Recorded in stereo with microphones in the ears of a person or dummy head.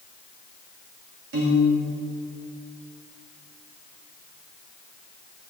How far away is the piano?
About 2 m.